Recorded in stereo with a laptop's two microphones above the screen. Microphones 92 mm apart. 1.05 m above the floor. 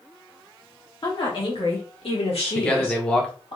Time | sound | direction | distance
1.0 | a woman speaking | 55° left (ahead or behind) | 2 m
2.5 | a man speaking | 10° left (ahead or behind) | 1.0 m